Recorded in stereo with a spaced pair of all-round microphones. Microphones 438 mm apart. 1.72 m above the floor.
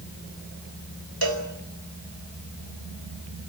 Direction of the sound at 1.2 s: 55° right (ahead or behind).